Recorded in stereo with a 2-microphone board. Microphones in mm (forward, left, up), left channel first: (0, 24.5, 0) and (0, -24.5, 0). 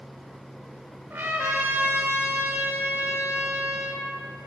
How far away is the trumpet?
About 0.8 m.